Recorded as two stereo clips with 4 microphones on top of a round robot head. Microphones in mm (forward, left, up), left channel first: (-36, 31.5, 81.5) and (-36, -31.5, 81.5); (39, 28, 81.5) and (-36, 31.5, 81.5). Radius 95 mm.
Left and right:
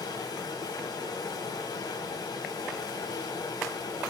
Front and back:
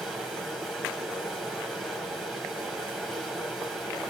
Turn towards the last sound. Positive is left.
turn(degrees=90)